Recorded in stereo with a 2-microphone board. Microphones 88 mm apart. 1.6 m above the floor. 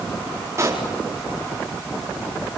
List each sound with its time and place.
0.6 s a pop: 35° right (ahead or behind), 4.5 m